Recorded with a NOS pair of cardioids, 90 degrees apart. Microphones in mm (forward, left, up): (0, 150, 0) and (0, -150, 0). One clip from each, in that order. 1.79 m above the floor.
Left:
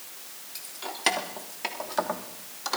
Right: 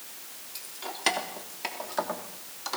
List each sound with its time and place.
0.6 s keys jangling: 5° left, 4 m; by 2.8 s 20° left, 3 m